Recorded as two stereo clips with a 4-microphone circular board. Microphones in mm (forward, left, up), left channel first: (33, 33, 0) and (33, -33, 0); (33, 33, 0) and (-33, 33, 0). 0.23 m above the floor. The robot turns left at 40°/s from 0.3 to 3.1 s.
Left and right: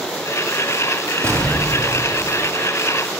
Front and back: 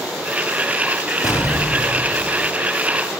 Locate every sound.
1.2 s an explosion: 45° right, 4.5 m; by 2.5 s 90° right, 4.5 m